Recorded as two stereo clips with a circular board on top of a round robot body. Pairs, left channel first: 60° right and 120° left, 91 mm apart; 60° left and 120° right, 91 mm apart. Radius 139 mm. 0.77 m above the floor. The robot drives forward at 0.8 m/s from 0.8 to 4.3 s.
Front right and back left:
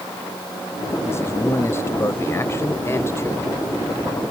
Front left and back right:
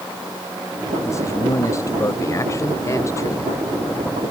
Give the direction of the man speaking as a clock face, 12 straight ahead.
12 o'clock.